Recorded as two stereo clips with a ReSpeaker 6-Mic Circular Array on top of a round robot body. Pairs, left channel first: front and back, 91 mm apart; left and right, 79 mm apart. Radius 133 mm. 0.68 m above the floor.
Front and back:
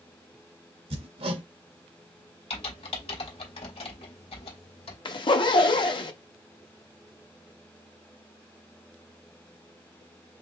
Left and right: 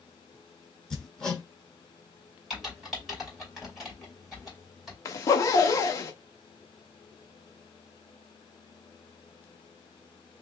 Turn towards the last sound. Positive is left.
turn(degrees=35)